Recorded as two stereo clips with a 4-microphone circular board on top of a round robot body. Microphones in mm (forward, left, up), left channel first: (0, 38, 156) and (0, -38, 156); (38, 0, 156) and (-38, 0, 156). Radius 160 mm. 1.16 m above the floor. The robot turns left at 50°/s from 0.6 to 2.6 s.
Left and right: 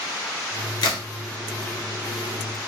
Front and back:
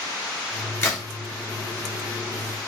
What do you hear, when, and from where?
0.8 s a crack: 60° left, 0.6 m; by 1.1 s 50° left, 0.6 m